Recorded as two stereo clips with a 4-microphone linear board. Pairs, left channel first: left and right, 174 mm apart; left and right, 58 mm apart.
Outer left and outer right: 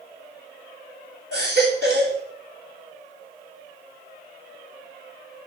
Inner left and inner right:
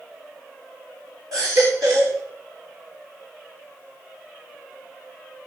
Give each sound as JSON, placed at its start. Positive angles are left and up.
{"t": 1.3, "sound": "a baby crying", "side_deg": -75, "distance_m": 7.5}